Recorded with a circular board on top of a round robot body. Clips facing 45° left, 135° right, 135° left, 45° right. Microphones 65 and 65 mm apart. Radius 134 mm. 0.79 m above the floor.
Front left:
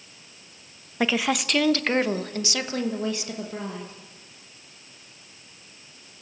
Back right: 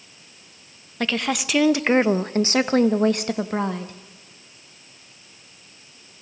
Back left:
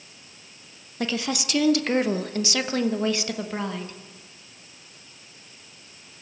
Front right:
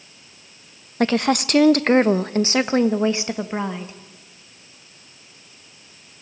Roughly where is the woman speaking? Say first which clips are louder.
Front left 1 dB, front right 9 dB; ahead right.